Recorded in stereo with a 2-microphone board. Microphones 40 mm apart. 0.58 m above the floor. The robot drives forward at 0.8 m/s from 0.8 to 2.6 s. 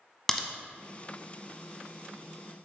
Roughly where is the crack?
Centre.